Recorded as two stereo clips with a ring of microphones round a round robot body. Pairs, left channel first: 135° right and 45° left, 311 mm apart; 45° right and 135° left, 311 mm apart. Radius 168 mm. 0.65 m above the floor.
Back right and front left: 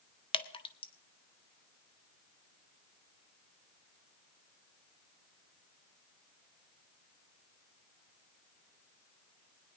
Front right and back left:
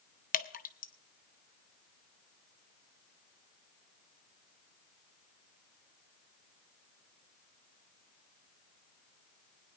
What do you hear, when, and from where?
0.3 s dripping: 75° right, 1.0 m